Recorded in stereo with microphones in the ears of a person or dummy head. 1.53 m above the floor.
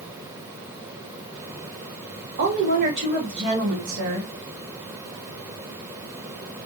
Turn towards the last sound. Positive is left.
turn(degrees=-55)  # may be behind; listen again after turning